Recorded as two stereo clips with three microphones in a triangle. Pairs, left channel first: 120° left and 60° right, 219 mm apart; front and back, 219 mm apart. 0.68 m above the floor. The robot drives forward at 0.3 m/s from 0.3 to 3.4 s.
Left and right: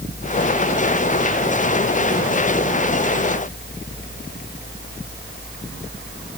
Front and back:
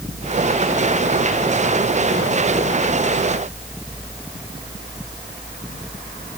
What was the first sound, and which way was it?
Only background noise.